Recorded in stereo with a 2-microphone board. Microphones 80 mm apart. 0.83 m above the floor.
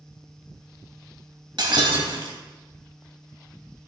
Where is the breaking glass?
70° right (ahead or behind), 1.4 m.